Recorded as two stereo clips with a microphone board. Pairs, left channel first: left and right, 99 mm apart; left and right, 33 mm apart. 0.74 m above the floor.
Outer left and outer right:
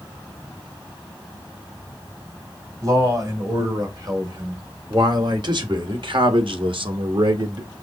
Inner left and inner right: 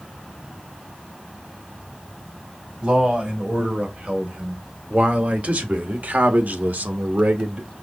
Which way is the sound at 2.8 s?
35° right (ahead or behind).